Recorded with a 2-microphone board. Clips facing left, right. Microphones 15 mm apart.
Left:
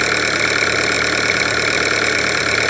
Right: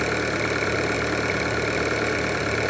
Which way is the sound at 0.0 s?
75° left (ahead or behind).